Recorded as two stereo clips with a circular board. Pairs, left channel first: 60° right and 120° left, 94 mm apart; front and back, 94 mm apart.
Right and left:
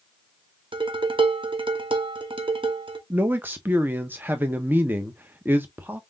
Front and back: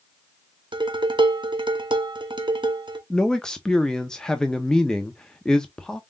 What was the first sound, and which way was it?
Dishes clattering, 145° left.